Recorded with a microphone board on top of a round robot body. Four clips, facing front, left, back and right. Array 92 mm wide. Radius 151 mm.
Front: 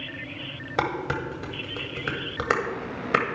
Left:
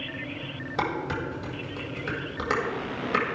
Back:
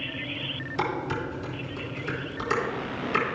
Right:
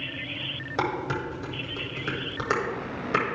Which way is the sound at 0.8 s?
10° right.